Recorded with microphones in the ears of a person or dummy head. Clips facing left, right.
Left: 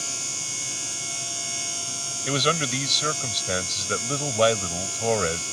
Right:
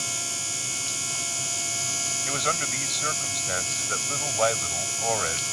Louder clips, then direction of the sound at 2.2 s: Left 7 dB; 45° left (ahead or behind).